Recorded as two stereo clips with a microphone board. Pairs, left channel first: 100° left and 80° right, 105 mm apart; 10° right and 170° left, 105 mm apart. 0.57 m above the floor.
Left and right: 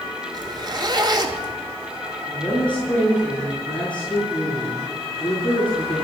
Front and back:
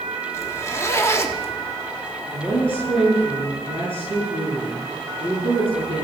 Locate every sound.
0.3 s a zipper: 65° right, 1.5 m
2.3 s a woman speaking: 25° left, 7.5 m